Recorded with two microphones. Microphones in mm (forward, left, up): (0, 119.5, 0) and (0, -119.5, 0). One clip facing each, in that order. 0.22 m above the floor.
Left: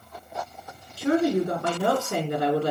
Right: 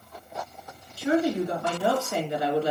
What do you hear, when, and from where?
1.0 s a woman speaking: 60° left (ahead or behind), 2.5 m